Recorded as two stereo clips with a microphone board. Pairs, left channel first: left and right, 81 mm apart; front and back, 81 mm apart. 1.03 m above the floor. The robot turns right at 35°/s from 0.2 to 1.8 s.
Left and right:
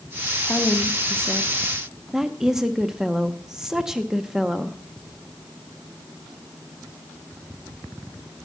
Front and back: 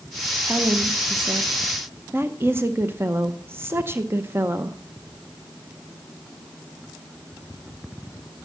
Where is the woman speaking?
145° left, 0.6 m; by 4.8 s 170° right, 0.6 m.